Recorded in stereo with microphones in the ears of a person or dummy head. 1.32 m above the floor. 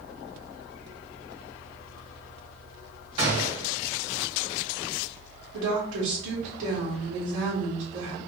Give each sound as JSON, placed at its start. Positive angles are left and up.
{"t": 3.2, "sound": "a gunshot", "side_deg": -40, "distance_m": 2.0}
{"t": 5.5, "sound": "a woman speaking", "side_deg": -70, "distance_m": 2.0}